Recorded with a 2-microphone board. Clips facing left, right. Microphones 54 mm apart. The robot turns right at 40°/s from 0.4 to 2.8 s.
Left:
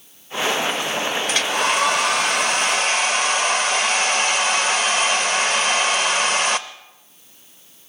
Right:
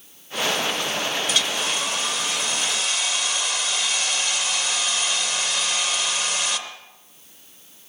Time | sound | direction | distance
1.3 | a hair dryer | 55° left | 0.6 m